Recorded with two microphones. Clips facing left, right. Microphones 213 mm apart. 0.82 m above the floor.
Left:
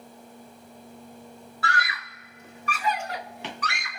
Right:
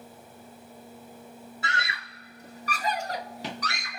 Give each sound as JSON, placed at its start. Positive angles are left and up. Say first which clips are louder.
{"t": 1.6, "sound": "a scream", "louder": "left 5 dB", "side_deg": -20, "distance_m": 0.6}